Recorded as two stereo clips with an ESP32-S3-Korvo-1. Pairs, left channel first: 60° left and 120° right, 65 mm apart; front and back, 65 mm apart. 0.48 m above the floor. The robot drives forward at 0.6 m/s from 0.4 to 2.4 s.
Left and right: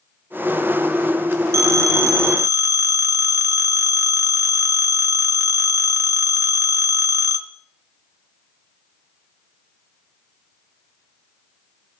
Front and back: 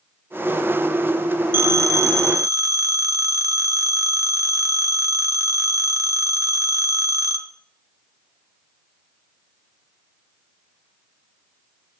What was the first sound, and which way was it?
A phone ringing, 140° right.